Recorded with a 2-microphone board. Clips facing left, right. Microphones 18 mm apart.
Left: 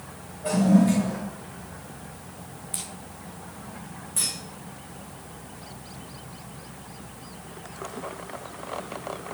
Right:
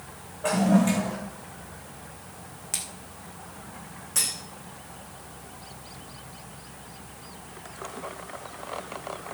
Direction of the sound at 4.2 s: 75° right (ahead or behind).